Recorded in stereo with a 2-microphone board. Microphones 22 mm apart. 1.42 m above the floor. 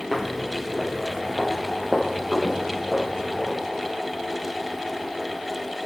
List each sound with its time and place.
0.1 s footsteps: 10° right (ahead or behind), 1.9 m; by 3.6 s 20° right (ahead or behind), 4.5 m